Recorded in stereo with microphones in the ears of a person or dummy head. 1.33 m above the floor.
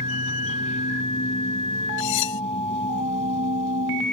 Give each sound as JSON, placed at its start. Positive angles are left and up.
{"t": 0.0, "sound": "a machine running", "side_deg": 40}
{"t": 2.0, "sound": "cutlery clinking", "side_deg": 65}